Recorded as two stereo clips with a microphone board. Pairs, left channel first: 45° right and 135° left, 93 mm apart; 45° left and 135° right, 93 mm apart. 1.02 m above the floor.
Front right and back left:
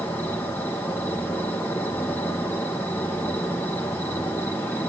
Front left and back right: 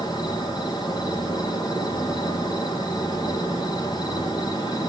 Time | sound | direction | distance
0.0 | an insect | 20° left | 2 m